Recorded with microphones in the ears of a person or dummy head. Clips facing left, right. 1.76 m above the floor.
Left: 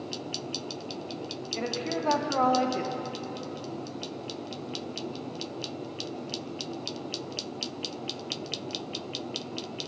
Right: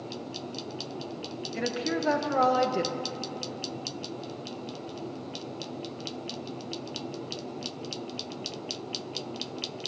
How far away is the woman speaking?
About 0.6 m.